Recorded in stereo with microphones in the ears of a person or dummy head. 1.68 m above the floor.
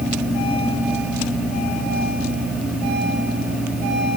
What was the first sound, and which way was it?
Only background noise.